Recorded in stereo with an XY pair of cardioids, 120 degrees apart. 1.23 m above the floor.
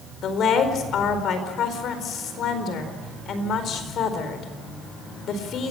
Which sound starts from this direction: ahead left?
A woman speaking, at 0.2 s.